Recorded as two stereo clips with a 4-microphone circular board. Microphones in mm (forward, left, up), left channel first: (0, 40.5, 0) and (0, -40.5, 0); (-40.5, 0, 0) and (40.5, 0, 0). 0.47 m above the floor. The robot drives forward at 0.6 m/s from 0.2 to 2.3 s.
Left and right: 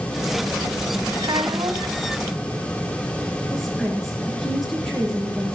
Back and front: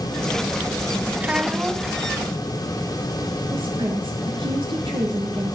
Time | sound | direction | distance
1.2 | a child speaking | 70° right | 3 m
3.5 | a woman speaking | straight ahead | 6.5 m